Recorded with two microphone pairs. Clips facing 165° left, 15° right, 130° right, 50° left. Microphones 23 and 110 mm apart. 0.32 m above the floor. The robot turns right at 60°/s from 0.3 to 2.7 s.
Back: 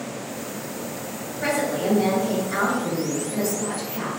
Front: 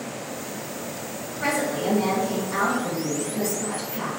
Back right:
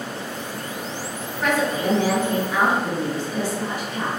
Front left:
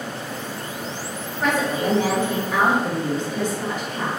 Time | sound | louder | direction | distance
1.4 | a woman speaking | back 1 dB, even | 75° left | 1.8 m